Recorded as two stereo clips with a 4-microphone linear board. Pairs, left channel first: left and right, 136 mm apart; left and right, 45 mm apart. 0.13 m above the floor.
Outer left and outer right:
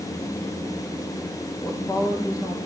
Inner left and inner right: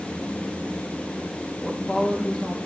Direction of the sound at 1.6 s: 25° left (ahead or behind).